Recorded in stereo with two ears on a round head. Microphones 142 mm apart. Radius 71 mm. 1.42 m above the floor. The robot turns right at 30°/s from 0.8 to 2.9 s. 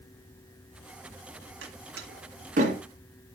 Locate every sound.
1.6 s a door slam: 75° right (ahead or behind), 2.0 m; by 2.8 s 40° right (ahead or behind), 2.0 m